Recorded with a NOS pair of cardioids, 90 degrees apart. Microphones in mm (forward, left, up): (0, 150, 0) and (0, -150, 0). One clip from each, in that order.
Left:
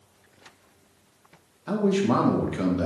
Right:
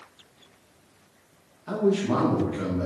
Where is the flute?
I don't hear a flute.